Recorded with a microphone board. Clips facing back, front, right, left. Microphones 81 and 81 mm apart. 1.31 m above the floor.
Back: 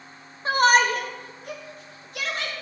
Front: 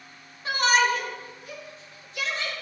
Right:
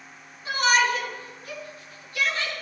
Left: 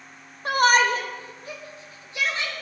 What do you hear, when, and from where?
0.5 s a shout: 125° left, 1.2 m; by 2.5 s 160° left, 4 m